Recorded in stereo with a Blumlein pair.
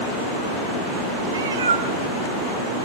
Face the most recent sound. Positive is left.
turn(degrees=-65)